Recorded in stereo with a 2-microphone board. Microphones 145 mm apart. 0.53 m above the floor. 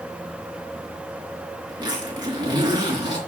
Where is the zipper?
30° right (ahead or behind), 4 m.